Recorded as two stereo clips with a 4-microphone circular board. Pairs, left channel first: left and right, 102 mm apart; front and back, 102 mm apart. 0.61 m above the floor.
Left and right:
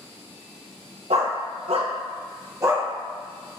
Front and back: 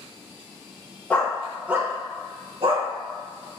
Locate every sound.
1.1 s a dog barking: 75° right, 0.7 m; by 2.9 s 155° right, 0.8 m